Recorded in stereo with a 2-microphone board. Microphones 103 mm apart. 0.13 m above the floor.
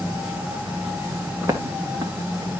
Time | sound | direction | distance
1.4 | footsteps | 25° right (ahead or behind) | 2 m